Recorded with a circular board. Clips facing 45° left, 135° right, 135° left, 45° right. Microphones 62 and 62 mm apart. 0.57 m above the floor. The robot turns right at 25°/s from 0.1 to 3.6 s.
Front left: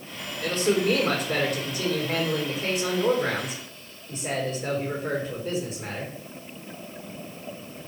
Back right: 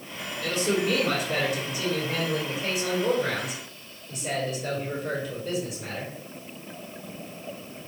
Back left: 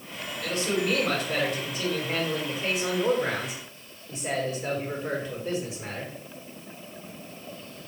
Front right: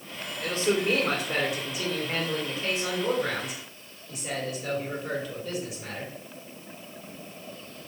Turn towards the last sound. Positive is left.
turn(degrees=85)